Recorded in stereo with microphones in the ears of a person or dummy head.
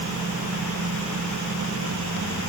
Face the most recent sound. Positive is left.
No sound to turn to.